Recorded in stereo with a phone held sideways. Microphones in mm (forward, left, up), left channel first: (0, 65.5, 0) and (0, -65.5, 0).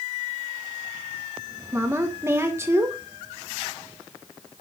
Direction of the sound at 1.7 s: 20° right (ahead or behind).